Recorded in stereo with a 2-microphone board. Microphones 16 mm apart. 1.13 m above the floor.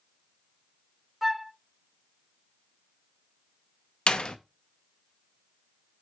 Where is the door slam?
70° left (ahead or behind), 0.7 m.